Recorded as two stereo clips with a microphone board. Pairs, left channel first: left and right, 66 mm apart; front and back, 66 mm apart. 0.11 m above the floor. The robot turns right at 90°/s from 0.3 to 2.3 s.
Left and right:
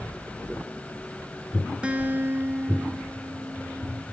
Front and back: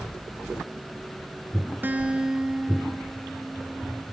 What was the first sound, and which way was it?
A guitar, 150° right.